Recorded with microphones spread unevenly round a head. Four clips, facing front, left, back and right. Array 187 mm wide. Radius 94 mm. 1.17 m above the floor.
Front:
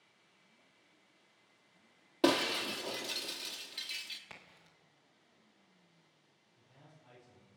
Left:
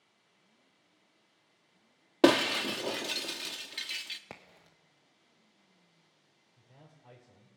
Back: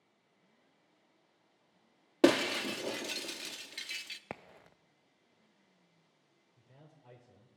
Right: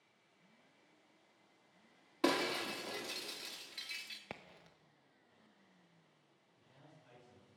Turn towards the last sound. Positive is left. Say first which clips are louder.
# left 4 dB, back 1 dB
turn(degrees=145)